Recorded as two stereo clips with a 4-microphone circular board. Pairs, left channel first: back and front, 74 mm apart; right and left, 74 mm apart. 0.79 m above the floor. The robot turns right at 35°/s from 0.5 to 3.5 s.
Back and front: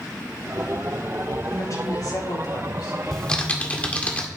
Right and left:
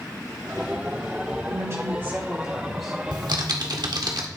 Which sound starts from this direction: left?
Typing on a keyboard, at 3.1 s.